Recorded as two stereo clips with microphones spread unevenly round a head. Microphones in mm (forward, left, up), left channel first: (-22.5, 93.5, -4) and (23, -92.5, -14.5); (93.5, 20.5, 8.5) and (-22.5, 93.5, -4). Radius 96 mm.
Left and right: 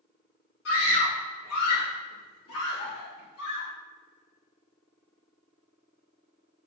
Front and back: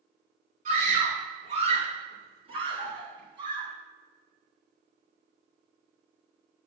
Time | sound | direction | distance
0.7 | a scream | 120° left | 3.5 m